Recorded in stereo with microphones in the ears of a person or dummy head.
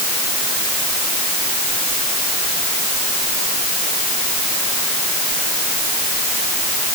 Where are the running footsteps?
I don't hear running footsteps.